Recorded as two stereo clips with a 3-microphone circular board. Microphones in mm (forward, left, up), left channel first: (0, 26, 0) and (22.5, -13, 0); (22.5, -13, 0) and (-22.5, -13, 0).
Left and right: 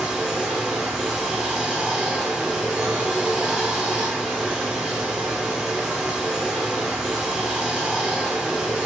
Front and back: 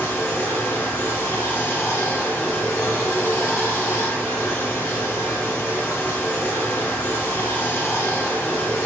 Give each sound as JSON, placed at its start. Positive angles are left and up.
{"t": 0.0, "sound": "running water", "azimuth_deg": 10, "distance_m": 1.2}